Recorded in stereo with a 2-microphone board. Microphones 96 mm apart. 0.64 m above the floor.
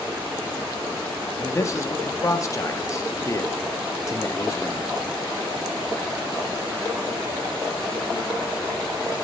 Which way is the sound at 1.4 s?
30° left (ahead or behind).